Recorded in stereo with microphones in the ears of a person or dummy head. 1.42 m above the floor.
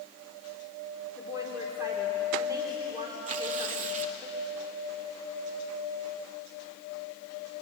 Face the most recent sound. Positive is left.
turn(degrees=-45)  # may be behind; listen again after turning